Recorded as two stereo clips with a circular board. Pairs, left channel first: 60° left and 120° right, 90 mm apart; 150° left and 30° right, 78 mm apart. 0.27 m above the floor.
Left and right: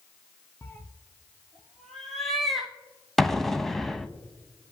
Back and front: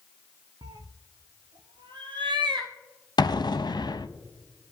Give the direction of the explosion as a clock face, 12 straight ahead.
7 o'clock.